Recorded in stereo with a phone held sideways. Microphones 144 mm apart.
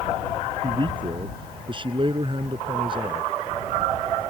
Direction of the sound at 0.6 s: 35° right (ahead or behind).